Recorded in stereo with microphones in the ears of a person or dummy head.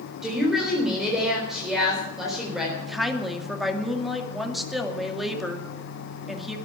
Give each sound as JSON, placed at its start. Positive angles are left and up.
{"t": 0.2, "sound": "a woman speaking", "side_deg": 0, "distance_m": 4.0}
{"t": 2.8, "sound": "a woman speaking", "side_deg": 0, "distance_m": 2.5}